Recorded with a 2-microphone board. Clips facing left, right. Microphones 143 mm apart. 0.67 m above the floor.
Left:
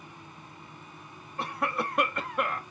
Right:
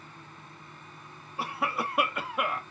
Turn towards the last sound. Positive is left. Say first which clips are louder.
# left 1 dB
turn(degrees=-5)  # may be behind; listen again after turning